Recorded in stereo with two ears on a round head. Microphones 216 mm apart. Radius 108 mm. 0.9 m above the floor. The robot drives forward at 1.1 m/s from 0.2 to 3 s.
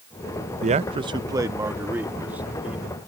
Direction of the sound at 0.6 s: 30° right (ahead or behind).